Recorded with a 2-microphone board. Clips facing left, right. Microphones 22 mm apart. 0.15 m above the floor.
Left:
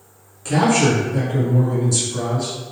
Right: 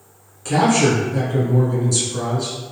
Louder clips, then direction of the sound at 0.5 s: Even; 5° left (ahead or behind).